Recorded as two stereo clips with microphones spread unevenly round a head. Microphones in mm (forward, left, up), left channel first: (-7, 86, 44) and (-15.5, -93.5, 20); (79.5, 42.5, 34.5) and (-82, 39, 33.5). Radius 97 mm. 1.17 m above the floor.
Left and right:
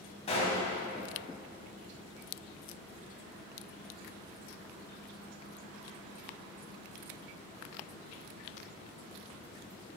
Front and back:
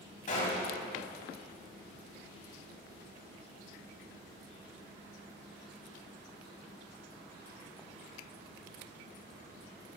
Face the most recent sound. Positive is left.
turn(degrees=35)